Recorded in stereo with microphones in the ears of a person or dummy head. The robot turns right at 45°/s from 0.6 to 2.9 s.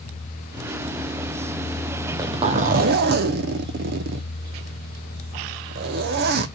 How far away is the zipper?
About 0.6 m.